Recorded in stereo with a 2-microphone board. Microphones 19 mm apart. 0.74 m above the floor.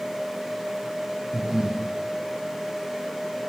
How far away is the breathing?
About 0.8 m.